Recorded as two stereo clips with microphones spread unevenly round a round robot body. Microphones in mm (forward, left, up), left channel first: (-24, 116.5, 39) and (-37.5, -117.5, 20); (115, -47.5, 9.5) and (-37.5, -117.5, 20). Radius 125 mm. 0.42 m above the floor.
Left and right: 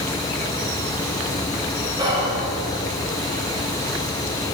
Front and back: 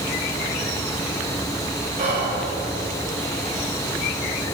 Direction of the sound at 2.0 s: 160° right.